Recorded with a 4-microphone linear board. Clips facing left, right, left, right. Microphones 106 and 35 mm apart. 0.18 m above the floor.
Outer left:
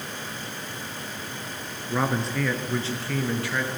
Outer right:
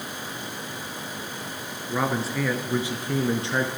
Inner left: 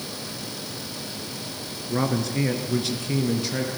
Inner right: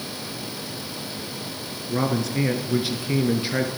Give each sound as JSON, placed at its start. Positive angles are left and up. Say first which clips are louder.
{"t": 1.9, "sound": "a man speaking", "louder": "even, inner right 1 dB", "side_deg": 5, "distance_m": 3.0}